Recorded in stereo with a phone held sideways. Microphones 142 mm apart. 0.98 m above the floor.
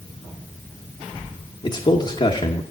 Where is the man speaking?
40° left (ahead or behind), 1.1 m.